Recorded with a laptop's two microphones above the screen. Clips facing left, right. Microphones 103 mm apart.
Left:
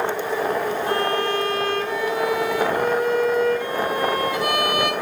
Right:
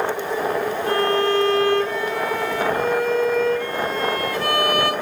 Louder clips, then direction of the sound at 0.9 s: Right 6 dB; 15° left (ahead or behind).